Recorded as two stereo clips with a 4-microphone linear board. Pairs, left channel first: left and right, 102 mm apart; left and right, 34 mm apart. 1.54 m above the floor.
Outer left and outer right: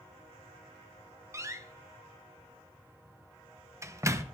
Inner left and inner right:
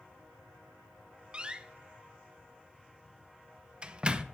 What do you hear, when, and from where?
1.3 s a door slam: 25° right (ahead or behind), 0.7 m